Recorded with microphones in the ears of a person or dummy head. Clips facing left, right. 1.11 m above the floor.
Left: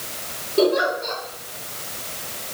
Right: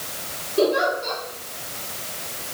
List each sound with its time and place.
0.6 s a giggle: 20° left (ahead or behind), 4 m